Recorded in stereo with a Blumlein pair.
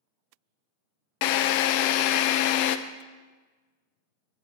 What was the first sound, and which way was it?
A drill, 45° left.